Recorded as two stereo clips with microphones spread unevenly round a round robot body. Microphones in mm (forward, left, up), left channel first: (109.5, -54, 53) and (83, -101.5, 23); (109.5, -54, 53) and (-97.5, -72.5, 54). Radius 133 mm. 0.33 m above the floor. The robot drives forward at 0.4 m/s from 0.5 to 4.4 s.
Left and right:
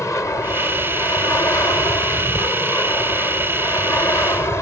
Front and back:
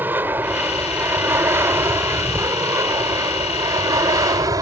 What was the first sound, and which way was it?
An aircraft, 110° left.